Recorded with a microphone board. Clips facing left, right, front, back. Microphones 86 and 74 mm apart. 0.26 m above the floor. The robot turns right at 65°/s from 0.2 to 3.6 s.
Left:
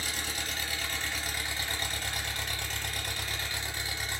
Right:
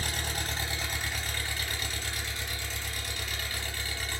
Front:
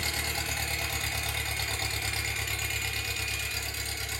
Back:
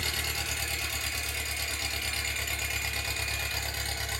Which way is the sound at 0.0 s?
65° right.